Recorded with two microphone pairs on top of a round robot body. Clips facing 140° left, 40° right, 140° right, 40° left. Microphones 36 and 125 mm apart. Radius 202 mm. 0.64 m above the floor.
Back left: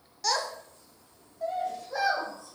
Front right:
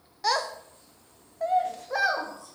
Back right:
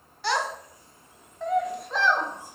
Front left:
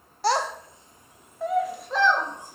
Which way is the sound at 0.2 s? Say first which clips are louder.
Front right 3 dB, front left 3 dB; 15° left.